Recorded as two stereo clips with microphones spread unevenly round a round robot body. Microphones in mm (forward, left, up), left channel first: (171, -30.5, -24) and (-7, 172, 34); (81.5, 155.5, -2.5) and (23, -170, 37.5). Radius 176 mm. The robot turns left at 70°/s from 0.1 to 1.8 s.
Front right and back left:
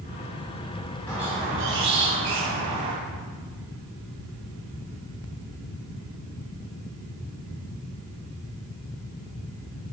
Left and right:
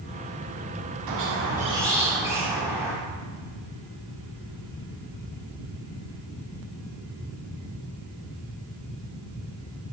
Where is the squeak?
135° right, 1.4 m; by 3.0 s 175° left, 1.4 m.